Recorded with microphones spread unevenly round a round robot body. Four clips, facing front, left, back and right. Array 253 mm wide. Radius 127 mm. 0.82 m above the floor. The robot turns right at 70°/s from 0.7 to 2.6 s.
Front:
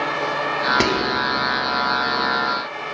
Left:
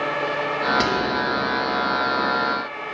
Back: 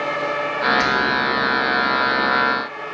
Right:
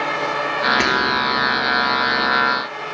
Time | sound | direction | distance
0.8 | whispering | 10° right | 2 m